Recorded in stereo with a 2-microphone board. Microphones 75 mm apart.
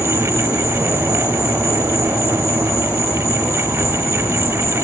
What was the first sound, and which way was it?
An insect, 40° left (ahead or behind).